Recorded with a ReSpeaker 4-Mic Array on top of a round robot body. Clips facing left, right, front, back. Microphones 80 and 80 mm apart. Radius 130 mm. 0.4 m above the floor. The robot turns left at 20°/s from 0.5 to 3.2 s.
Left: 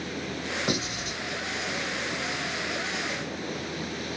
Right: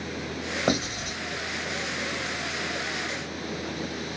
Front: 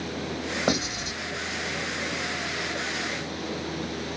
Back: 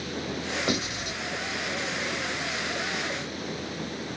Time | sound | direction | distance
0.7 | writing | 50° right | 2.5 m